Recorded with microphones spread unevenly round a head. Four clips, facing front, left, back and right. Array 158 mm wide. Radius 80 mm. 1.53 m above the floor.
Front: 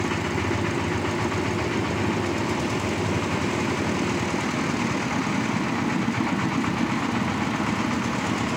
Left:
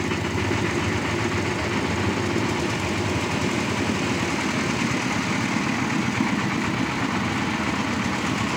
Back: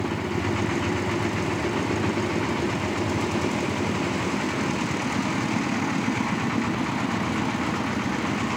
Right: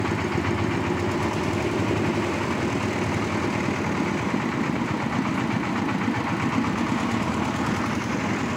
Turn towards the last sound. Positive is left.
No sound to turn to.